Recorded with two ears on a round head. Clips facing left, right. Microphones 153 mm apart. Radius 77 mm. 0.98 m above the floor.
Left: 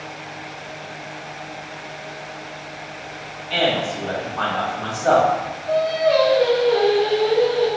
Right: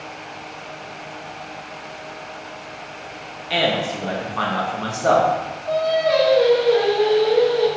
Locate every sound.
3.5 s a man speaking: 70° right (ahead or behind), 1.1 m
5.7 s singing: 60° right (ahead or behind), 1.6 m